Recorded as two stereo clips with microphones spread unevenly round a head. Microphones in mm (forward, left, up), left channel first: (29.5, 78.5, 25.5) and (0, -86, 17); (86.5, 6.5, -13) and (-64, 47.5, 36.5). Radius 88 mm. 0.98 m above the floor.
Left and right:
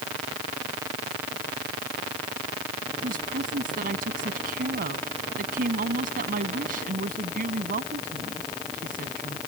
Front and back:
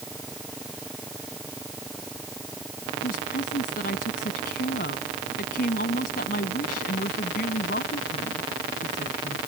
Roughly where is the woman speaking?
Ahead right.